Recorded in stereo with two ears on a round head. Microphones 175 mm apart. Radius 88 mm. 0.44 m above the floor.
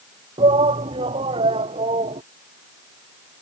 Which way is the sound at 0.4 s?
25° right (ahead or behind).